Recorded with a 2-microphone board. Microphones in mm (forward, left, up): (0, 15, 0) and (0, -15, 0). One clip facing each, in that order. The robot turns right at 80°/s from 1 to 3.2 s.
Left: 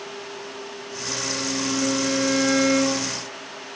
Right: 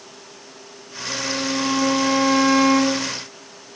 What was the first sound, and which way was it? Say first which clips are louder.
A violin: right 4 dB; 170° left.